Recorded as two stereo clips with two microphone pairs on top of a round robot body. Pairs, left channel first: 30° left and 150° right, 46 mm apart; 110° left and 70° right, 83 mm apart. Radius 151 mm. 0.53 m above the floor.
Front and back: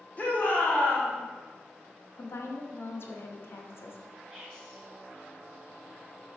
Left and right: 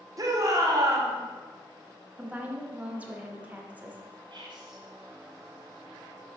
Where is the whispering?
55° right, 2 m.